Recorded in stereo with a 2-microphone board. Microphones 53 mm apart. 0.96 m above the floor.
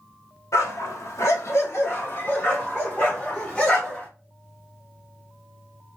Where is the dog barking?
65° left (ahead or behind), 1.1 m; by 4.1 s 15° left (ahead or behind), 2.0 m.